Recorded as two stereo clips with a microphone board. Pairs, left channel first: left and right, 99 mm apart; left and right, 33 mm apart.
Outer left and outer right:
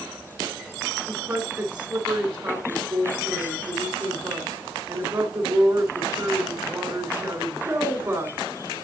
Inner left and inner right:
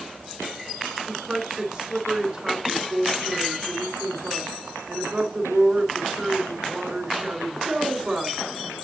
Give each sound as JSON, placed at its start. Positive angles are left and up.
{"t": 1.1, "sound": "a woman speaking", "side_deg": -35, "distance_m": 2.5}